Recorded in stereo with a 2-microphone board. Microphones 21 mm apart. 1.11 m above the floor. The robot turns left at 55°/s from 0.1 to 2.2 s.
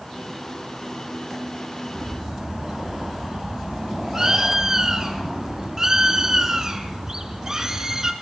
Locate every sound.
1.9 s a bird: 10° right (ahead or behind), 2.5 m; by 8.1 s 25° right (ahead or behind), 2.5 m